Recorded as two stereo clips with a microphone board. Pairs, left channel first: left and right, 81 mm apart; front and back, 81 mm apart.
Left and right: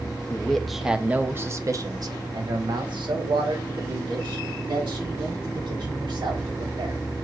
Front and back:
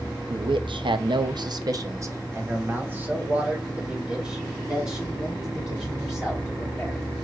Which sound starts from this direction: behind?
A man speaking, at 0.3 s.